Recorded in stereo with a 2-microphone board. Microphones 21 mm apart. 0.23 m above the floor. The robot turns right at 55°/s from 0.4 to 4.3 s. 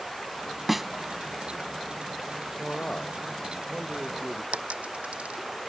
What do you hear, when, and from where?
0.7 s a snare drum: 10° right (ahead or behind); by 0.9 s centre (ahead or behind)
2.6 s a man speaking: 80° left; by 4.4 s 175° left
4.5 s a dropped coin: 85° right